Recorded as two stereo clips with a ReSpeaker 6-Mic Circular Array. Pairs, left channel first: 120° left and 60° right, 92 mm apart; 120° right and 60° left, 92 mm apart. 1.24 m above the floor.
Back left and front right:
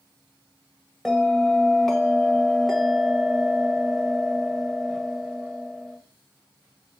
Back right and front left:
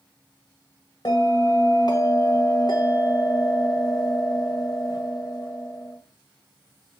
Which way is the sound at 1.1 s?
155° right.